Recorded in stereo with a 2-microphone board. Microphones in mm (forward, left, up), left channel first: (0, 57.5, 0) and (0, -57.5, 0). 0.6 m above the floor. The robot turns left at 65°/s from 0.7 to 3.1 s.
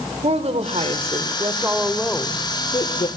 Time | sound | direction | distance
0.2 | a woman speaking | 95° right | 2.5 m